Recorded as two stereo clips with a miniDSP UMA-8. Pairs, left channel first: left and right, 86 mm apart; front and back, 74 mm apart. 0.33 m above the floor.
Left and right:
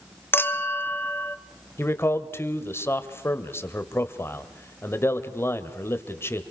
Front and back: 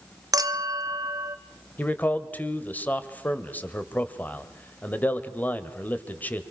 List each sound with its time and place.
0.3 s a clink: 150° left, 1.3 m
1.8 s a man speaking: 50° left, 1.8 m